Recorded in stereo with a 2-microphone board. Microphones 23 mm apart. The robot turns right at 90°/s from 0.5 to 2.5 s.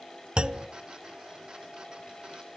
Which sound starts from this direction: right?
A clunk, at 0.4 s.